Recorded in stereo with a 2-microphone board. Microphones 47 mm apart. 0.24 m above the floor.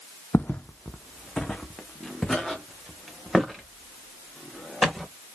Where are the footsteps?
45° left (ahead or behind), 0.6 m; by 5.1 s 5° left (ahead or behind), 3.5 m.